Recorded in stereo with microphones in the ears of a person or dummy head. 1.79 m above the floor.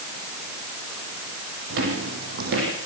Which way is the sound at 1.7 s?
65° right (ahead or behind).